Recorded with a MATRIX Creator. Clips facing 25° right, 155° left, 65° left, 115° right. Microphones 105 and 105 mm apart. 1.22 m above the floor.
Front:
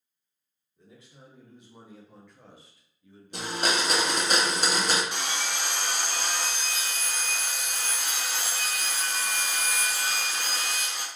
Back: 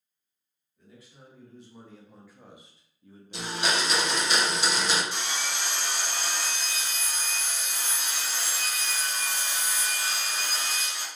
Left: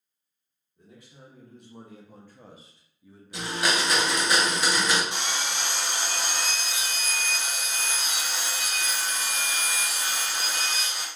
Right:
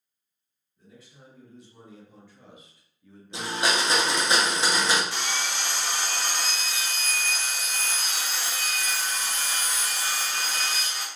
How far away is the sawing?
About 0.7 m.